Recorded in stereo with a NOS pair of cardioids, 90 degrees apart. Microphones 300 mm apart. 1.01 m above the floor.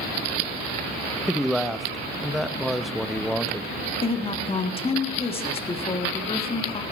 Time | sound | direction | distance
1.3 | a man speaking | straight ahead | 0.7 m
4.0 | a woman speaking | 20° left | 1.4 m